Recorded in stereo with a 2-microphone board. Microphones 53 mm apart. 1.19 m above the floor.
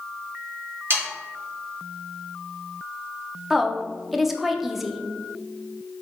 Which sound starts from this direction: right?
Sawing, at 0.9 s.